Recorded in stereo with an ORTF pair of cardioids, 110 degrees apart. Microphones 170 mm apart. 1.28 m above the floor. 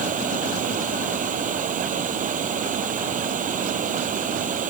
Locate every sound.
0.0 s running water: 50° right